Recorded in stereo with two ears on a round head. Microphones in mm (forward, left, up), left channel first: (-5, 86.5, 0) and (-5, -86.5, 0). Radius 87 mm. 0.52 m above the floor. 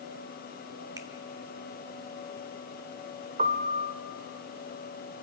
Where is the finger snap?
15° right (ahead or behind), 1.4 m.